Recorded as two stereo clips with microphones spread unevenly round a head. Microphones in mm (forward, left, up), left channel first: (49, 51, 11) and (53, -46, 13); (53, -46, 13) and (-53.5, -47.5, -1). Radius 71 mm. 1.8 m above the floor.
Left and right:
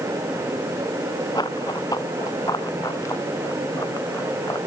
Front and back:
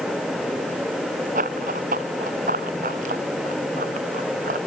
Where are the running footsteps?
160° left; by 4.6 s 165° left.